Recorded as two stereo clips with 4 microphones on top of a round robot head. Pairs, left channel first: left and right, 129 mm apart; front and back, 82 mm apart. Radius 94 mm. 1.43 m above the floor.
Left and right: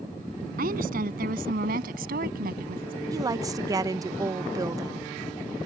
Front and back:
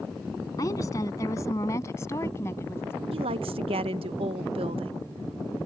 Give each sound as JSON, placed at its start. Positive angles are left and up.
{"t": 0.6, "sound": "a woman speaking", "azimuth_deg": -65}
{"t": 3.1, "sound": "a woman speaking", "azimuth_deg": -155}